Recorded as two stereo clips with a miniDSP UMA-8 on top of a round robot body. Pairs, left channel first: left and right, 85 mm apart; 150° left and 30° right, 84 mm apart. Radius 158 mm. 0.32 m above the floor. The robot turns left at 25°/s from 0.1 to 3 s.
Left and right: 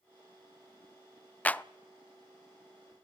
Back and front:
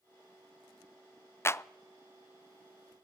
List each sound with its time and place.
1.4 s a clap: 145° left, 0.7 m; by 1.6 s 140° left, 0.7 m